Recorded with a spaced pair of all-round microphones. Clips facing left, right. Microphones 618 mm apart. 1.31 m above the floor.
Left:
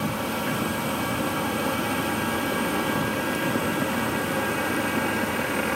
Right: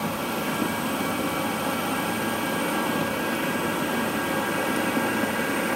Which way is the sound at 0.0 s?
40° left (ahead or behind).